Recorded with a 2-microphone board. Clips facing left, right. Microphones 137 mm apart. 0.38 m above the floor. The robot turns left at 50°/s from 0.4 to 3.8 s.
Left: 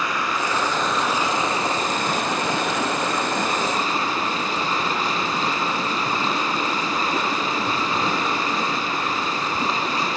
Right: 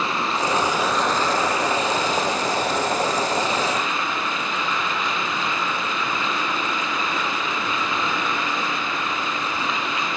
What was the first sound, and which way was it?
Running water, 150° right.